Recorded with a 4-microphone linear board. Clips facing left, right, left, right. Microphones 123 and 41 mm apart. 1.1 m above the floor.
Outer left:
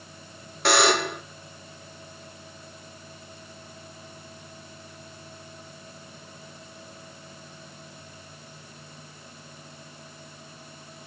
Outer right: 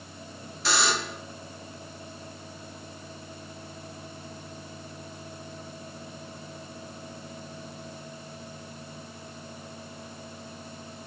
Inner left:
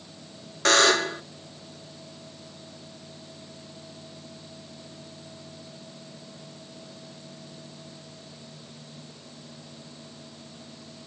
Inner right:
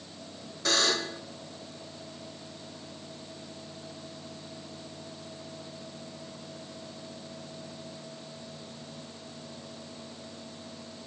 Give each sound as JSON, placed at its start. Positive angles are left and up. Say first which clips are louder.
{"t": 0.7, "sound": "a buzzer", "louder": "outer left 7 dB, inner left 8 dB", "side_deg": 60, "distance_m": 0.8}